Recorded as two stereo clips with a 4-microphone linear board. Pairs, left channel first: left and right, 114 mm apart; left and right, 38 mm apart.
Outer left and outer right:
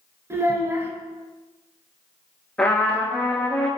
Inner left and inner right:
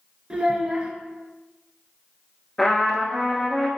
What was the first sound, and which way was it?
A child speaking, 25° right (ahead or behind).